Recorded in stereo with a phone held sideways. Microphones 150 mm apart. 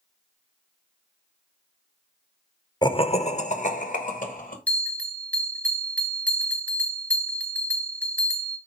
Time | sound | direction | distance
2.8 | laughter | 30° left (ahead or behind) | 0.6 m
4.7 | a bell | 10° left (ahead or behind) | 1.1 m